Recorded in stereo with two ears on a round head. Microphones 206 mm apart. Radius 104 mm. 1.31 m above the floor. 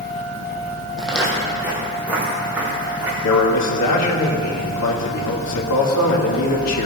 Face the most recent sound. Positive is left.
turn(degrees=75)  # may be behind; listen again after turning